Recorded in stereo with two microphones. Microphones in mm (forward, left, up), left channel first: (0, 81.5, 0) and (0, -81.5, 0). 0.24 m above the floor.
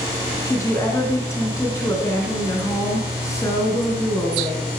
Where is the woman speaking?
15° left (ahead or behind), 3 m.